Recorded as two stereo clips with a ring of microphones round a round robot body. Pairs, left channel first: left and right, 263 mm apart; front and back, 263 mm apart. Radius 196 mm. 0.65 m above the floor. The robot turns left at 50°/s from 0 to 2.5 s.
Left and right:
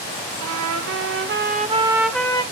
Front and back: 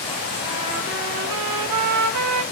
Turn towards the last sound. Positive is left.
turn(degrees=160)